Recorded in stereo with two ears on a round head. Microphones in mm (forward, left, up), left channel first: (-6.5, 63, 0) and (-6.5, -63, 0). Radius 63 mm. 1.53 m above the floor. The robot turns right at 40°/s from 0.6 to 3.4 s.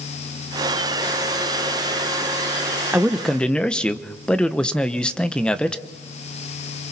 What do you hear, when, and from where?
2.9 s a man speaking: 10° right (ahead or behind), 0.8 m; by 5.8 s 5° left (ahead or behind), 0.8 m